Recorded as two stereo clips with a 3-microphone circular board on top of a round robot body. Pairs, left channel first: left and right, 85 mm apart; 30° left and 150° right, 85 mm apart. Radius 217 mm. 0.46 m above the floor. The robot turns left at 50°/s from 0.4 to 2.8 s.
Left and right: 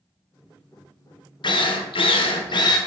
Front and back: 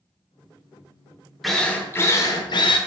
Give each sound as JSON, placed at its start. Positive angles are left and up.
{"t": 1.4, "sound": "a drill", "azimuth_deg": 120, "distance_m": 0.8}